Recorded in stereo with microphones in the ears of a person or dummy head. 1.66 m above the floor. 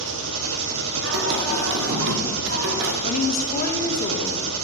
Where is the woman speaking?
55° left (ahead or behind), 1.6 m.